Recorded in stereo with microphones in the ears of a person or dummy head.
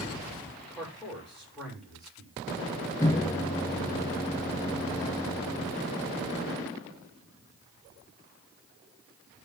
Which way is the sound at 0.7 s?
Centre (ahead or behind).